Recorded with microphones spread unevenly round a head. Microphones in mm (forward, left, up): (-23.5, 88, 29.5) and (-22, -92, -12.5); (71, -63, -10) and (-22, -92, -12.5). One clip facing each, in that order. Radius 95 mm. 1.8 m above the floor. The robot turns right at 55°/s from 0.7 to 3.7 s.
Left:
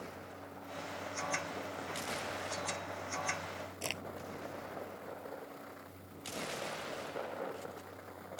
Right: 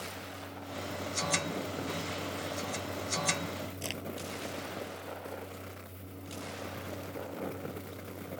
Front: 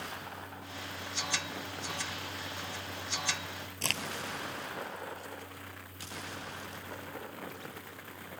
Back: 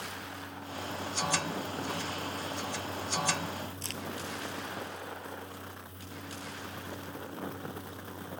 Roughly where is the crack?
Ahead.